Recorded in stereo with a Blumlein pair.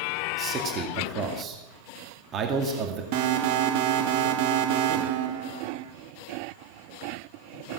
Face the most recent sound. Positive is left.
turn(degrees=-45)